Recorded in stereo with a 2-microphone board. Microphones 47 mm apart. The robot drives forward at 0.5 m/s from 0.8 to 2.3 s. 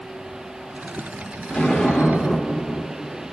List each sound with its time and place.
1.5 s an explosion: 15° left (ahead or behind), 2 m; by 3.3 s 20° left (ahead or behind), 1.9 m